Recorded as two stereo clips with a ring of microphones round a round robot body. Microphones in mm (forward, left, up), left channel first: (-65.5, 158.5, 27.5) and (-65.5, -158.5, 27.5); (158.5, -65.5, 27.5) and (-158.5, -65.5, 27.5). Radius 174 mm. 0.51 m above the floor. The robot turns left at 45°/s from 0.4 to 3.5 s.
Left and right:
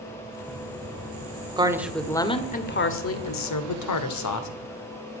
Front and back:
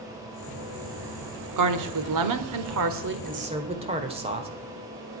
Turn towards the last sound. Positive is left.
turn(degrees=110)